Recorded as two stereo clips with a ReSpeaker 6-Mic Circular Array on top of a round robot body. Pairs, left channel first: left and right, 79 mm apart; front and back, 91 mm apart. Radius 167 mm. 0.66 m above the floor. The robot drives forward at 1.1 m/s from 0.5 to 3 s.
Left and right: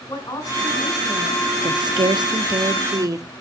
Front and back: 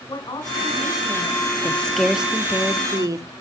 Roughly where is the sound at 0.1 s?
Ahead left.